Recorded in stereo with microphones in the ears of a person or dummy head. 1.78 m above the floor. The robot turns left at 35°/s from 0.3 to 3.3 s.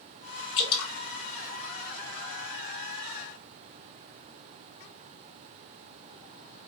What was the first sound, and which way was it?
Dripping, 30° left (ahead or behind).